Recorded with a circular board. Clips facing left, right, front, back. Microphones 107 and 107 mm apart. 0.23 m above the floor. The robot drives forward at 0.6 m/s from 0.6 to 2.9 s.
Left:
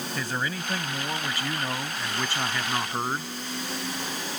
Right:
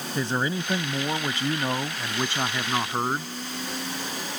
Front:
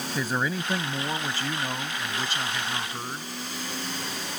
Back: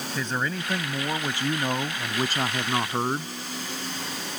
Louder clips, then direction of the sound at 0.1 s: Right 6 dB, front 1 dB; 75° right.